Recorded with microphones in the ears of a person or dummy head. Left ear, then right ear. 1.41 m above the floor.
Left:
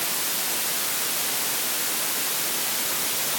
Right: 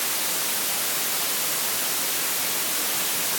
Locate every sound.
Only background noise.